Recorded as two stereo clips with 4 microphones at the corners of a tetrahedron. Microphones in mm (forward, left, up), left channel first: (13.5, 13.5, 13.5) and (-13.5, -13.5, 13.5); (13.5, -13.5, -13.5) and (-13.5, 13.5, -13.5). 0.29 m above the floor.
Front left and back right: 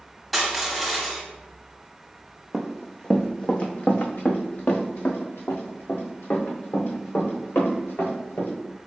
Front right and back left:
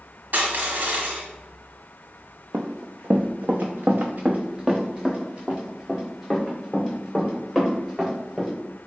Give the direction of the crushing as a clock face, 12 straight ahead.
8 o'clock.